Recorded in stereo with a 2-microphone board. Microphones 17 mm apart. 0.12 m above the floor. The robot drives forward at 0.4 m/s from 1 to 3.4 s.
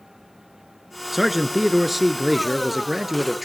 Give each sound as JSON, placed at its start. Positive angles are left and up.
{"t": 1.1, "sound": "a man speaking", "side_deg": -15, "distance_m": 1.2}